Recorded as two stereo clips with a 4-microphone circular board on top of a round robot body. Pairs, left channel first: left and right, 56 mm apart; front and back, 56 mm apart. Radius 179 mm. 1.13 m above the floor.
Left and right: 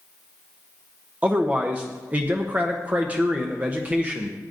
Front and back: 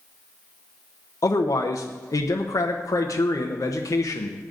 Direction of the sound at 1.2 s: 25° right.